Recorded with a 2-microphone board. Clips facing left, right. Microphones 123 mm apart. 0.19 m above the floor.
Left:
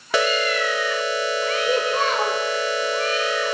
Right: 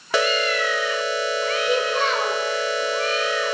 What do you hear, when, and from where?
1.7 s a child speaking: 35° left (ahead or behind), 3.5 m